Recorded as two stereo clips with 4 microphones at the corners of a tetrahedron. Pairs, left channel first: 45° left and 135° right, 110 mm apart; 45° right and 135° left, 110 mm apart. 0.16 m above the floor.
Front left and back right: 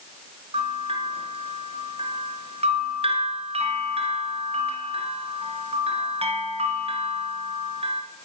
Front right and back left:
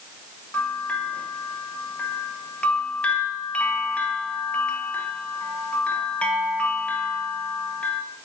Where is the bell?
125° right, 1.1 m.